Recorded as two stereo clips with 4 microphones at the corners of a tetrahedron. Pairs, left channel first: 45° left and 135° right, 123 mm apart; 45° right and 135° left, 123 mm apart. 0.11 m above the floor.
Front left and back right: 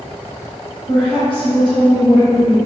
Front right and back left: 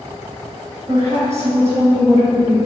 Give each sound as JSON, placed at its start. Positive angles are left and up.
{"t": 0.9, "sound": "a woman speaking", "azimuth_deg": 75, "distance_m": 1.7}